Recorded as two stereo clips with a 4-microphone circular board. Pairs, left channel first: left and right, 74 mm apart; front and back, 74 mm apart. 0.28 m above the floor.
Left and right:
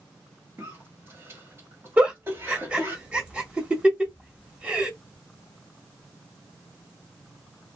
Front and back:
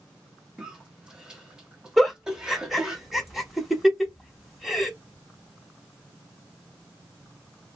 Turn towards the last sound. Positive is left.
turn(degrees=-105)